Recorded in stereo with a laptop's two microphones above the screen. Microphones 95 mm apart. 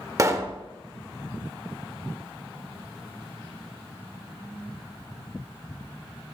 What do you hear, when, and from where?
0.2 s a pop: 30° right (ahead or behind), 0.8 m